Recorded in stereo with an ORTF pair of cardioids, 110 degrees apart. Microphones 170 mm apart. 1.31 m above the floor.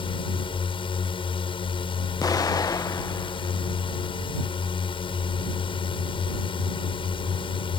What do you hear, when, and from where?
0.0 s a drone: 30° left
2.2 s an explosion: 20° left